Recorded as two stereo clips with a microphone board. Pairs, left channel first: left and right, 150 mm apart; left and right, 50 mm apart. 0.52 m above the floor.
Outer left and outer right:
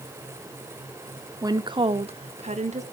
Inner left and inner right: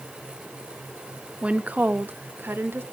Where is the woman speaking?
25° right (ahead or behind), 0.7 m; by 2.8 s 50° right (ahead or behind), 1.3 m.